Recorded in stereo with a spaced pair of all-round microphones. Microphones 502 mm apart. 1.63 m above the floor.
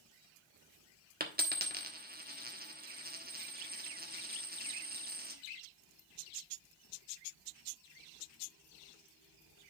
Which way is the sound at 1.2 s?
20° right (ahead or behind).